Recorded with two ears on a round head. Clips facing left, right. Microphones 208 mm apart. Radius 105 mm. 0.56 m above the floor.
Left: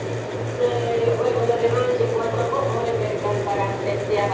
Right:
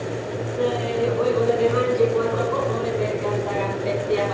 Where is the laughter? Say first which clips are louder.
Left 2 dB; 35° right (ahead or behind), 7.5 m; by 4.3 s 15° right (ahead or behind), 5.5 m.